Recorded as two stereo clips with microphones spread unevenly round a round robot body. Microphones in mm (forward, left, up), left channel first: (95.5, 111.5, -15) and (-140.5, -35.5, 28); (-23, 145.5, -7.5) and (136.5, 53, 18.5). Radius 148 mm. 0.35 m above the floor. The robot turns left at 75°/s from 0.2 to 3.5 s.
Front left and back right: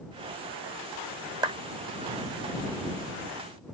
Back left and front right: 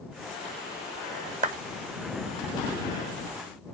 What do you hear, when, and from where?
1.4 s a clap: 65° right; by 1.6 s 75° right